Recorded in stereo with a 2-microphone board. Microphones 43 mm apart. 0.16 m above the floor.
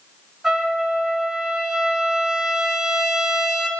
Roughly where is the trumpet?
Centre.